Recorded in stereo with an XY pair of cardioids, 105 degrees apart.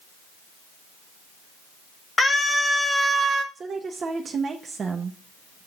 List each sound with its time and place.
2.2 s a scream: 25° left, 1.4 m; by 3.5 s 55° right, 0.6 m
3.5 s a woman speaking: 45° right, 0.7 m